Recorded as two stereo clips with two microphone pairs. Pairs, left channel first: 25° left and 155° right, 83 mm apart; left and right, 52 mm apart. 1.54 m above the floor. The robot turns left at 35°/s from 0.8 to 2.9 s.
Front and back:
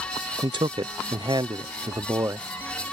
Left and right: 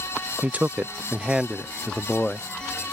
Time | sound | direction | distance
0.4 | a man speaking | 150° right | ?